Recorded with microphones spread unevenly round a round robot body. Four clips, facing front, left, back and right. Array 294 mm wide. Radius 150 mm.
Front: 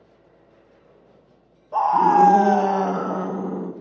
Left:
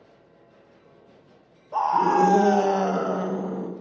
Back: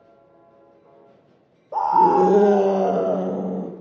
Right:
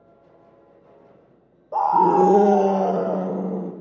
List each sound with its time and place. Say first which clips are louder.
1.7 s a scream: right 4 dB, even; 135° right, 1.8 m; by 3.7 s 155° right, 3 m